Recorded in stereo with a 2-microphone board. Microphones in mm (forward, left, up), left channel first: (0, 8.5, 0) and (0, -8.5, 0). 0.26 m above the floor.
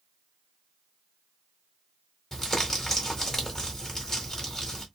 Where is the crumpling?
20° left (ahead or behind), 1.6 m.